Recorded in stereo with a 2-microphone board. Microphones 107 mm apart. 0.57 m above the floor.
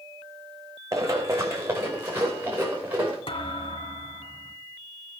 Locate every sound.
0.9 s running footsteps: 30° right (ahead or behind), 2.5 m; by 3.2 s 20° right (ahead or behind), 4.5 m
3.3 s a thud: 65° left (ahead or behind), 2 m